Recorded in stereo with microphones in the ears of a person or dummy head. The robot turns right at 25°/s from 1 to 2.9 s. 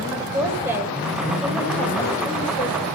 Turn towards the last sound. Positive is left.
turn(degrees=35)  # may be behind; listen again after turning